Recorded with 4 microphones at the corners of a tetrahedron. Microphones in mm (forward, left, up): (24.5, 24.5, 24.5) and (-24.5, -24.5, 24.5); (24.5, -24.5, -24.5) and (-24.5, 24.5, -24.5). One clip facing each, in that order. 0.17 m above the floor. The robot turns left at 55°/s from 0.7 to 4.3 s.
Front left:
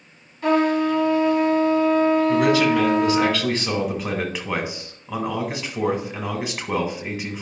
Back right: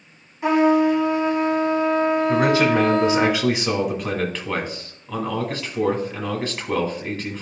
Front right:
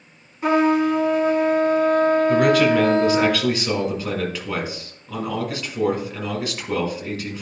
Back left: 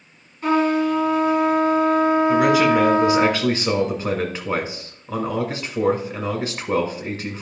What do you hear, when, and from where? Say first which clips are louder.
0.4 s a trumpet: back right 2 dB, front right 1 dB; 105° right, 1.7 m; by 3.3 s 115° left, 1.7 m
2.3 s a man speaking: even, even; 135° right, 1.7 m; by 7.4 s 110° left, 1.7 m